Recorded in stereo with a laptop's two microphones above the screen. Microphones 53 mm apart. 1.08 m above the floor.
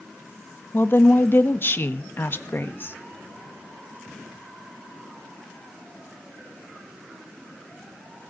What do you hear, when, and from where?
0.7 s a woman speaking: 40° left (ahead or behind), 1.6 m